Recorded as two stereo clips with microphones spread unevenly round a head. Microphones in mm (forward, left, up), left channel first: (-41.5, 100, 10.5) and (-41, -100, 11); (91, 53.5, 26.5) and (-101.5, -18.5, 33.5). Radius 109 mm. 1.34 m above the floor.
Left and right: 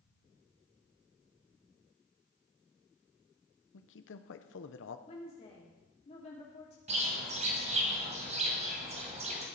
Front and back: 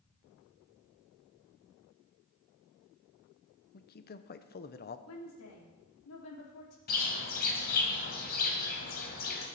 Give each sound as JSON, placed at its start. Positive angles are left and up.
{"t": 3.7, "sound": "a man speaking", "azimuth_deg": 60, "distance_m": 1.0}
{"t": 5.1, "sound": "a woman speaking", "azimuth_deg": 25, "distance_m": 3.5}
{"t": 6.9, "sound": "a bird", "azimuth_deg": -30, "distance_m": 2.5}